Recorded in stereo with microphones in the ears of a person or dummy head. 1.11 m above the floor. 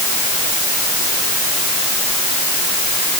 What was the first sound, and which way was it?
Only background noise.